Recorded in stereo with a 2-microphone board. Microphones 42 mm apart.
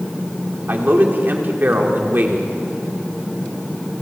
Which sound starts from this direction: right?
A man speaking, at 0.7 s.